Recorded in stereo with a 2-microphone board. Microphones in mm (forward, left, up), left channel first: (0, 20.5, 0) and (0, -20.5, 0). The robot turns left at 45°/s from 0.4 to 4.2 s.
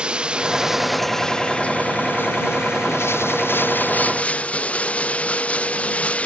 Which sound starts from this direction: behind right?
Running water, at 0.0 s.